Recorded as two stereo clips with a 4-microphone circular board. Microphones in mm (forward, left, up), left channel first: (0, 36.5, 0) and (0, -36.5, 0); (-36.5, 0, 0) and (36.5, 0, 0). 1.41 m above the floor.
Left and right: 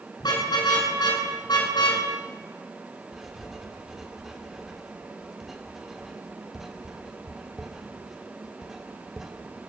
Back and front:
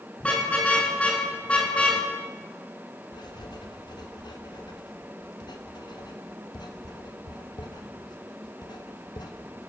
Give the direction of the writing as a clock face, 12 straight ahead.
6 o'clock.